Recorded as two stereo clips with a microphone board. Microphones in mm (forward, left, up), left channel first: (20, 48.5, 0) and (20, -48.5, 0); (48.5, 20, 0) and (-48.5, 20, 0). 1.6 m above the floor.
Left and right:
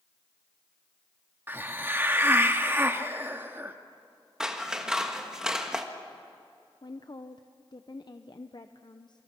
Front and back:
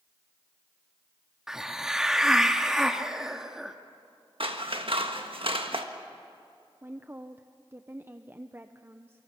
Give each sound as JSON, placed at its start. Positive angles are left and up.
{"t": 1.5, "sound": "a hiss", "azimuth_deg": -105, "distance_m": 1.1}
{"t": 4.4, "sound": "scissors", "azimuth_deg": -175, "distance_m": 1.4}
{"t": 6.8, "sound": "a woman speaking", "azimuth_deg": 115, "distance_m": 0.6}